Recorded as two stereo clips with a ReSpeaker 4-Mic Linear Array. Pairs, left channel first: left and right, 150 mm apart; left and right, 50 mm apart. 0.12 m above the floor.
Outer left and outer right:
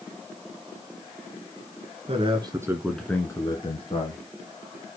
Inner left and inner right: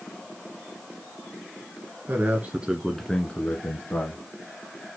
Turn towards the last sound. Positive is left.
turn(degrees=45)  # may be behind; listen again after turning